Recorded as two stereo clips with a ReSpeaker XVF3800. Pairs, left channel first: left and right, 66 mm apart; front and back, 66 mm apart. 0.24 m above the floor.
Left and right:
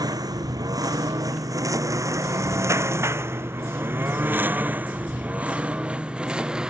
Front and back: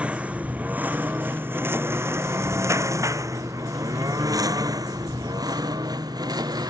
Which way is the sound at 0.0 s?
105° right.